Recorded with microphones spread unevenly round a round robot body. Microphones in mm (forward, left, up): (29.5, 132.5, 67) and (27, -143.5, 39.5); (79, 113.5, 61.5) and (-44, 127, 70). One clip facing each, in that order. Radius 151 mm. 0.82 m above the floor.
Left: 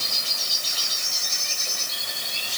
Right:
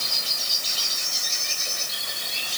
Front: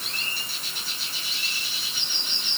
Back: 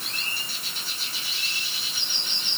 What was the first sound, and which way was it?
Only background noise.